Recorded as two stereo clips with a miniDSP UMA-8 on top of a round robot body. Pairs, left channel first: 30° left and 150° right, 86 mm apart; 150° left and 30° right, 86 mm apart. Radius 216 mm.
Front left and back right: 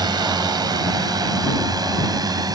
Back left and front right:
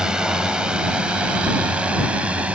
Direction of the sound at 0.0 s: 110° right.